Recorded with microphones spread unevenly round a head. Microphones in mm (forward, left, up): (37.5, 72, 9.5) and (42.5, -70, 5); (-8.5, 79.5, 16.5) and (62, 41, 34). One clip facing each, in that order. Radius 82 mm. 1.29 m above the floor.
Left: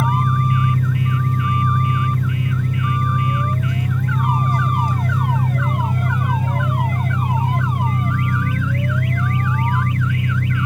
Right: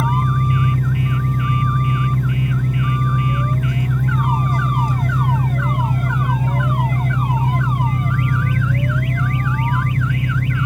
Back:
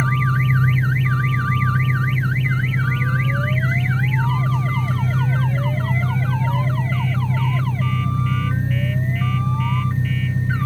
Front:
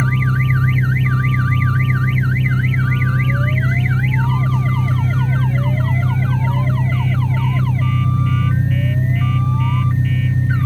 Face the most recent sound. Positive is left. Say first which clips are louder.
# even, front 1 dB
turn(degrees=-45)